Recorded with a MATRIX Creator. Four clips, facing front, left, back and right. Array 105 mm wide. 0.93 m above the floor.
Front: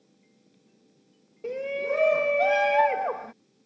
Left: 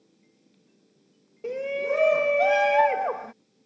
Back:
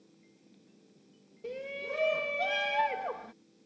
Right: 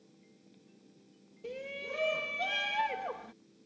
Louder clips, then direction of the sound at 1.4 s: Left 14 dB, front 10 dB; 55° left.